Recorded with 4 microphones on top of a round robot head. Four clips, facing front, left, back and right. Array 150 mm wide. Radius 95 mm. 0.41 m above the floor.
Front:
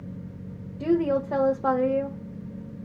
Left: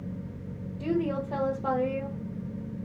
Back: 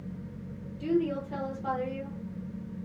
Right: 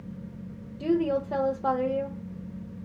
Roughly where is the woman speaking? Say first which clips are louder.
Right 3 dB, front 5 dB; ahead.